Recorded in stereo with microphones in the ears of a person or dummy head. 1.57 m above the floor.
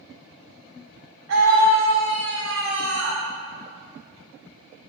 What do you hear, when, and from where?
1.3 s a scream: 80° right, 2 m